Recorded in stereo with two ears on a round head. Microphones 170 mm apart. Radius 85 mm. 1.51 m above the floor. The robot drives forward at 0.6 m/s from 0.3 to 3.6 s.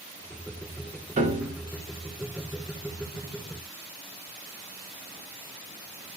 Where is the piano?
40° right (ahead or behind), 1.4 m; by 1.6 s 35° right (ahead or behind), 1.5 m.